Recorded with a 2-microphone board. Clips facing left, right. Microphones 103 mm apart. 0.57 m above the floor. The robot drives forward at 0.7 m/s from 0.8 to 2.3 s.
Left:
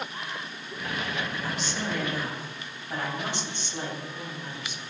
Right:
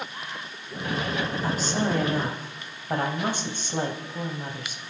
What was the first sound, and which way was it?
A woman speaking, 40° right (ahead or behind).